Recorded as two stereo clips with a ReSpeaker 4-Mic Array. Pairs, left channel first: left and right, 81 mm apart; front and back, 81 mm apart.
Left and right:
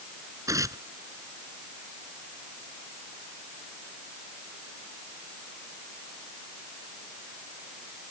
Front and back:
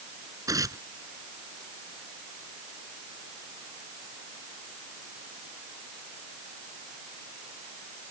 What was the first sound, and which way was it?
Tearing paper, 135° right.